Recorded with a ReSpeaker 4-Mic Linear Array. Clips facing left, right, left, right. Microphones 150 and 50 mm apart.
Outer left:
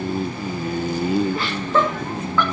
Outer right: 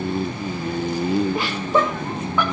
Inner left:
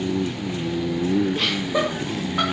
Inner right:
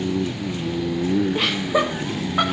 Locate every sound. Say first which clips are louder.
1.4 s laughter: outer right 1 dB, inner right 2 dB; 15° right (ahead or behind), 2.5 m